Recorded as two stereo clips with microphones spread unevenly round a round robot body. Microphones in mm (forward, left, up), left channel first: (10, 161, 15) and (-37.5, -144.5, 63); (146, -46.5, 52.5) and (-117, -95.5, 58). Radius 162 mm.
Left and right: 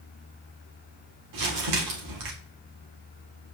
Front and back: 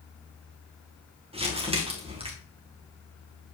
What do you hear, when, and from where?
1.3 s crumpling: 105° right, 2 m